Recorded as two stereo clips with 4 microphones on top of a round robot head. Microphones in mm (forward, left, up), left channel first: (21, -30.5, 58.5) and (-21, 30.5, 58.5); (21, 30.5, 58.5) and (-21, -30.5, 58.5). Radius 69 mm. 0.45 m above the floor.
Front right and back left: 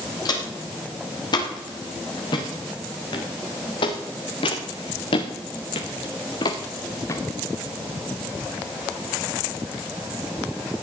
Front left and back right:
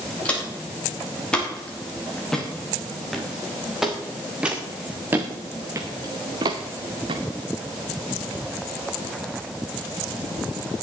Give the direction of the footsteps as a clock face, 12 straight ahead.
1 o'clock.